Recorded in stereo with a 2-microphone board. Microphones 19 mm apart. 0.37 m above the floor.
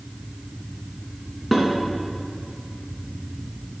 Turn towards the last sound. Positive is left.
turn(degrees=0)  # may be behind; listen again after turning